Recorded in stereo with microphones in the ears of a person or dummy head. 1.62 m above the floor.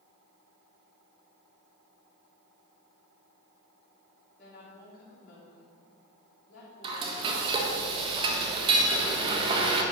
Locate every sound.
4.4 s a woman speaking: 55° left (ahead or behind), 3.5 m
6.8 s frying: 25° right (ahead or behind), 1.5 m